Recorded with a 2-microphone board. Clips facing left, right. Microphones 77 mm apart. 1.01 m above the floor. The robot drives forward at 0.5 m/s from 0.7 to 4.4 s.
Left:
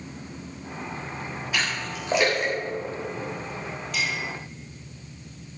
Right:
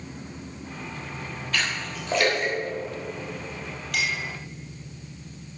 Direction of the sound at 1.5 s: 10° left (ahead or behind).